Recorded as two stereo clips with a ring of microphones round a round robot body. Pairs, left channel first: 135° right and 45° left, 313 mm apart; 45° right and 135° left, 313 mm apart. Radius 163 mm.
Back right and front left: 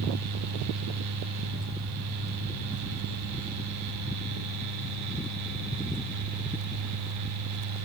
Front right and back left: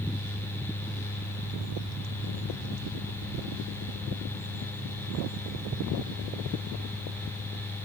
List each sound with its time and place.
Only background noise.